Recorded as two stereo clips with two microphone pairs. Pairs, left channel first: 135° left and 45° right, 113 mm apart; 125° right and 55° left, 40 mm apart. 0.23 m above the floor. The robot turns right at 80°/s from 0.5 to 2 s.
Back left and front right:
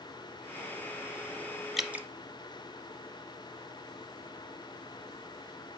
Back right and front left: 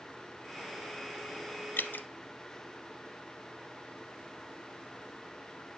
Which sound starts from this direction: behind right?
Dripping, at 1.8 s.